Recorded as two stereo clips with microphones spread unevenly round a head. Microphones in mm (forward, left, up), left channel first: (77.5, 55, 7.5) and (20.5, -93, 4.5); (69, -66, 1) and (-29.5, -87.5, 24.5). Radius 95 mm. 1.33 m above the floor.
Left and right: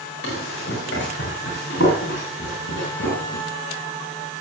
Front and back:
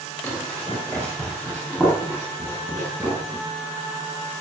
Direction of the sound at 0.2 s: 105° left.